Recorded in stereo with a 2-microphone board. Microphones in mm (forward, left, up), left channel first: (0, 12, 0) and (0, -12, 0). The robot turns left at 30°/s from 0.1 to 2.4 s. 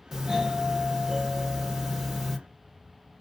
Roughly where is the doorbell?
Right.